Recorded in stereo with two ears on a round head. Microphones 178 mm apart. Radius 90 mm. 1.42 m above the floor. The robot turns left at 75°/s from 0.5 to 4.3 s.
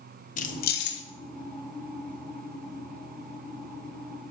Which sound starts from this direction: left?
Keys jangling, at 0.4 s.